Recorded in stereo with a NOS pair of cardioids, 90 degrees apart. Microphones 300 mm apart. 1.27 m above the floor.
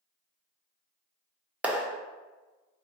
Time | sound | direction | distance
1.6 | a clap | 5° right | 0.8 m